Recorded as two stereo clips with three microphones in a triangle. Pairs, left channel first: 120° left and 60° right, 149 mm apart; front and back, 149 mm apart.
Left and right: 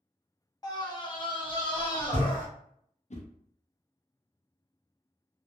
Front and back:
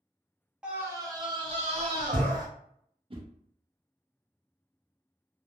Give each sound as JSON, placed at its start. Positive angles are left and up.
{"t": 0.6, "sound": "a scream", "azimuth_deg": 105, "distance_m": 0.8}
{"t": 3.1, "sound": "a whoosh", "azimuth_deg": 140, "distance_m": 0.5}